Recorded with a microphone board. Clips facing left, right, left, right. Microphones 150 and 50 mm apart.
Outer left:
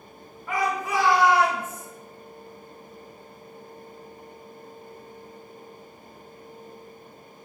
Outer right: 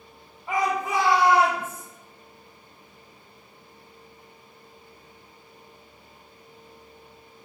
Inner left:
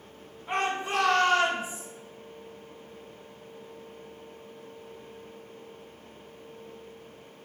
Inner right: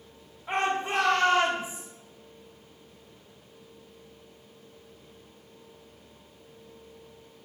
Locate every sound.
0.5 s a shout: 25° right (ahead or behind), 4 m; by 1.9 s 35° right (ahead or behind), 4.5 m